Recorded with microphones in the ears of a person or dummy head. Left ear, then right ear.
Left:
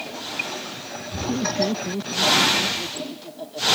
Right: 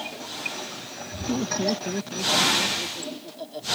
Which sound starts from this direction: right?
Laughter, at 1.3 s.